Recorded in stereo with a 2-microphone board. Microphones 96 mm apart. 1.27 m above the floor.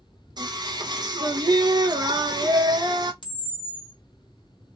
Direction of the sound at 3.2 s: 55° left (ahead or behind).